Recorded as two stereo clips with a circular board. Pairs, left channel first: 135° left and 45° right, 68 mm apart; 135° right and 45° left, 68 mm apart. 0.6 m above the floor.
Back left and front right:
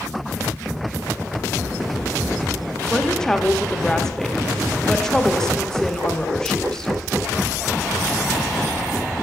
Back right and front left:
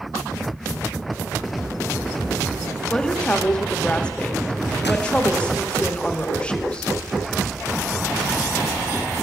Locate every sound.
2.9 s a woman speaking: 165° right, 0.7 m